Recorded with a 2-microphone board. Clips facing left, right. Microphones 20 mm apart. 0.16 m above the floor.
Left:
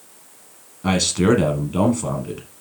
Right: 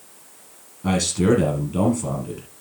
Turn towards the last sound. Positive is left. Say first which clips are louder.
# left 2 dB
turn(degrees=25)  # may be behind; listen again after turning